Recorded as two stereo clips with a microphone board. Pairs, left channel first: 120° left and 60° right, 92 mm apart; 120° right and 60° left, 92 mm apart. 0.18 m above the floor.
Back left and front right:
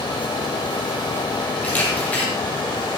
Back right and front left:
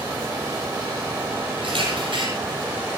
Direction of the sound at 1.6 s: 45° left.